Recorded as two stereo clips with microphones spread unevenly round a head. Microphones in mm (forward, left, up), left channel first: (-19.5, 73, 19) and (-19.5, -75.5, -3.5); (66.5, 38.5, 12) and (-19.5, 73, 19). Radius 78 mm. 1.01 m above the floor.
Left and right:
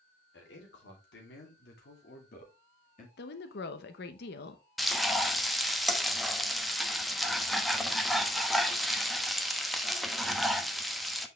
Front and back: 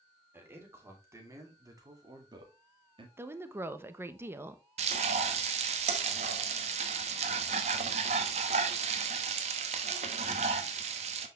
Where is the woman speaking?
95° left, 1.0 m.